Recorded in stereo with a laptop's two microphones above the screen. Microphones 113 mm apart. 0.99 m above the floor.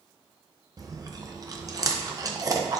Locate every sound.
0.8 s chewing: 35° right (ahead or behind), 0.7 m